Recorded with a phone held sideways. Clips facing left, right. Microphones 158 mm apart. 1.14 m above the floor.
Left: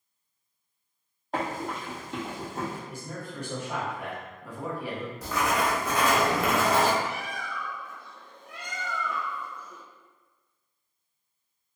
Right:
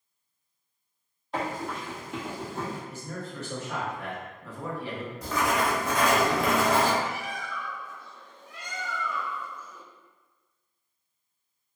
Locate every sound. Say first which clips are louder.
1.3 s running footsteps: left 1 dB; 45° left (ahead or behind), 1.6 m; by 2.8 s 5° left (ahead or behind), 1.6 m
2.9 s a man speaking: right 1 dB; 15° left (ahead or behind), 0.9 m
5.2 s writing: right 1 dB; centre (ahead or behind), 0.9 m
7.0 s a bird: even; 65° left (ahead or behind), 0.6 m